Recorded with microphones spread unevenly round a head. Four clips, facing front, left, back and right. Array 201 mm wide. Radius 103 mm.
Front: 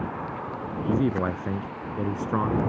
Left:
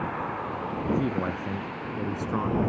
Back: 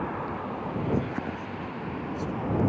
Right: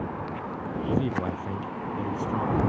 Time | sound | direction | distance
0.9 | a man speaking | 10° left | ?